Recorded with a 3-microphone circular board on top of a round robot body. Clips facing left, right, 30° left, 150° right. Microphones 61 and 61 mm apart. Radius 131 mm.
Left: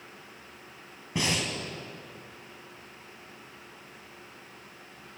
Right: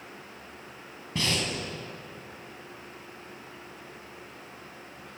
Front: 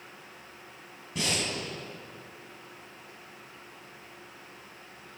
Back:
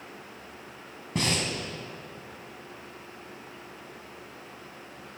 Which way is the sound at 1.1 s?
160° left.